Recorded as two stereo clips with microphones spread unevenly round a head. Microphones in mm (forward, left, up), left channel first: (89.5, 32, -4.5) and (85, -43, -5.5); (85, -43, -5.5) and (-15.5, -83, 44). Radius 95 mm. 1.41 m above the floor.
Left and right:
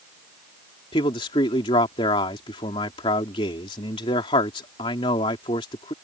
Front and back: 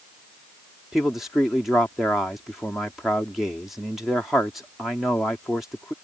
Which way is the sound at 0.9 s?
110° left.